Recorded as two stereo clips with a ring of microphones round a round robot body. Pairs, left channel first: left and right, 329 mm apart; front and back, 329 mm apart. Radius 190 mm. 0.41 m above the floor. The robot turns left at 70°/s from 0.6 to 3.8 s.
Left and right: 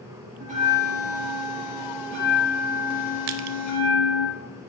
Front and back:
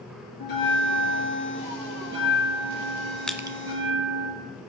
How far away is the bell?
About 4 m.